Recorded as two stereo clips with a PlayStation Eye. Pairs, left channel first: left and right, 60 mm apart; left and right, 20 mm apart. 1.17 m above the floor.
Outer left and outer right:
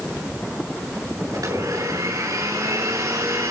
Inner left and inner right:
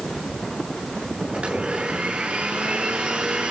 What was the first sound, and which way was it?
A blender, 75° right (ahead or behind).